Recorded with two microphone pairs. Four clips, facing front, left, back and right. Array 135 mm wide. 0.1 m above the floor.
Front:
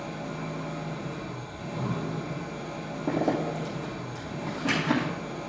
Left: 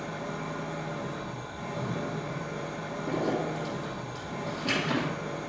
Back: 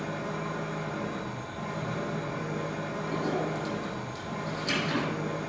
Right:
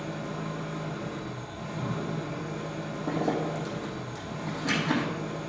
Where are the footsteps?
No footsteps in this recording.